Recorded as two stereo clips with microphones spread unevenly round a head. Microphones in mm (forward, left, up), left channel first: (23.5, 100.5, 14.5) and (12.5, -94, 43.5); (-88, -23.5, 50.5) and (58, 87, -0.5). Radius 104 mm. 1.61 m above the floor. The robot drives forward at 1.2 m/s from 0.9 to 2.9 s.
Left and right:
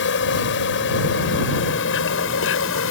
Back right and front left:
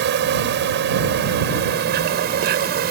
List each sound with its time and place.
0.0 s an insect: 60° left; by 2.9 s 70° left